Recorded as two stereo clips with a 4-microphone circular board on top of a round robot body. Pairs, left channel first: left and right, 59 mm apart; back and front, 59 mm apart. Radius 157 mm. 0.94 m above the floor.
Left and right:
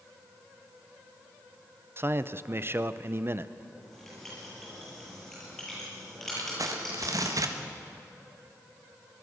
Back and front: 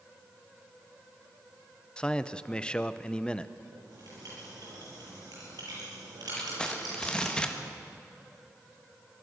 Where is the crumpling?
105° right, 1.6 m.